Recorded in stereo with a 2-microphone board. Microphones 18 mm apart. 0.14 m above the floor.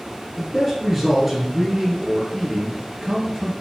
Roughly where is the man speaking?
Centre.